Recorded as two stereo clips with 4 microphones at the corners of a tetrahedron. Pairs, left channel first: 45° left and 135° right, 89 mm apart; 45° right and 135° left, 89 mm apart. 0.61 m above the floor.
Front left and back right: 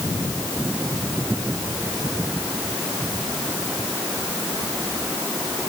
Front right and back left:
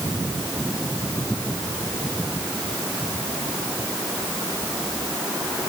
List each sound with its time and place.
Only background noise.